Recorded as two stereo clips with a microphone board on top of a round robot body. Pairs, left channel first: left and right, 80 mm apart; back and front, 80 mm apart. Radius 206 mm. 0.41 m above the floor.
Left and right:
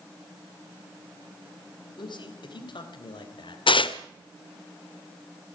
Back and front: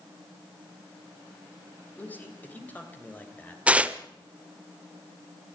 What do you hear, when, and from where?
2.0 s a man speaking: 110° left, 3.5 m
3.7 s tearing paper: 75° left, 0.9 m